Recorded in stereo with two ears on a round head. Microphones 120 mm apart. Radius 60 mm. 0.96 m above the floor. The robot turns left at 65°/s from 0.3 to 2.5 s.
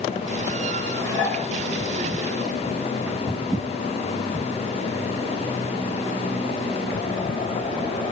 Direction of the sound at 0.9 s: 165° left.